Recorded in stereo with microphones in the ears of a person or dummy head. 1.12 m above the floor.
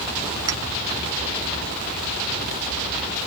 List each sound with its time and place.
0.5 s a clink: 20° right (ahead or behind)